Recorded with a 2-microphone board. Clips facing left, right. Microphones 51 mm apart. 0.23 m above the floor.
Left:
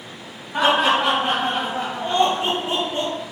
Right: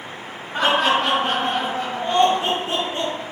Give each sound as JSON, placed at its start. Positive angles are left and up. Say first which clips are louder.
{"t": 0.5, "sound": "laughter", "louder": "left 1 dB", "side_deg": 15, "distance_m": 1.2}